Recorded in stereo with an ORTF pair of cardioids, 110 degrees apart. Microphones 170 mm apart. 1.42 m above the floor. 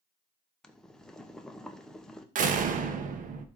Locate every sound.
0.6 s boiling: 5° left, 1.1 m
2.4 s a door slam: 55° right, 1.1 m